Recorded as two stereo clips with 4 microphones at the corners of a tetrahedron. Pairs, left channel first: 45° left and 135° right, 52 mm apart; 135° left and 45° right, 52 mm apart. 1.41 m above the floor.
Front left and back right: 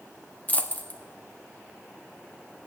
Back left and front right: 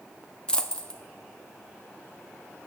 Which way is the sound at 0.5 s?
75° left.